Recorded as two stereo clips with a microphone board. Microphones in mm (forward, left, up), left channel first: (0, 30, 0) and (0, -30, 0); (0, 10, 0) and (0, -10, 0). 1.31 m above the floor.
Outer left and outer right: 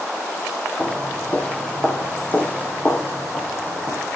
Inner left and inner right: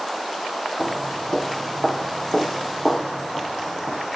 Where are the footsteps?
20° left (ahead or behind), 2.5 m; by 4.0 s 35° left (ahead or behind), 5 m.